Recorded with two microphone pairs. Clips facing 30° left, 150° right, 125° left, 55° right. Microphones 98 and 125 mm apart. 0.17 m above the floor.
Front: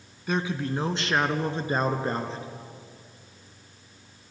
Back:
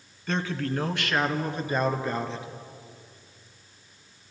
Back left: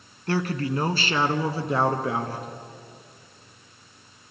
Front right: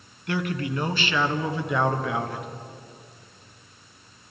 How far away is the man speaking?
About 1.4 m.